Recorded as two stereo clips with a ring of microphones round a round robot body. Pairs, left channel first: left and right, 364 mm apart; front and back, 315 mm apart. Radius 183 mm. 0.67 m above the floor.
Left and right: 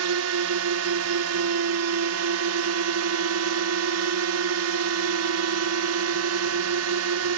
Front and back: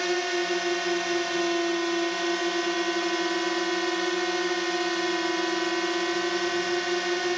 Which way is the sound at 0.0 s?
90° right.